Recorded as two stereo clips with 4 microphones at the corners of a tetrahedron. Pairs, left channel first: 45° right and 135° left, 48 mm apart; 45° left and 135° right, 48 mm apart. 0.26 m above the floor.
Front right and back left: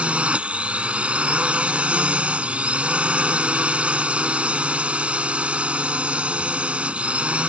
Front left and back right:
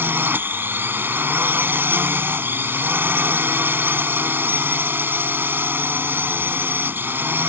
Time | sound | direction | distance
0.0 | a drone | 165° right | ?